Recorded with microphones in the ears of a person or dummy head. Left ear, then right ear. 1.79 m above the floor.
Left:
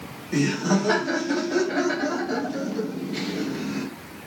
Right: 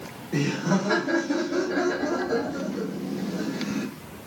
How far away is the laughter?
About 1.4 m.